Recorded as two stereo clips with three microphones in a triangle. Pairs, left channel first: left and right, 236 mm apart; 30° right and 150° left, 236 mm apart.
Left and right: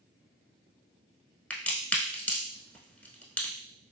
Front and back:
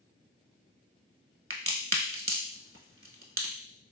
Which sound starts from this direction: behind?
A crack, at 1.5 s.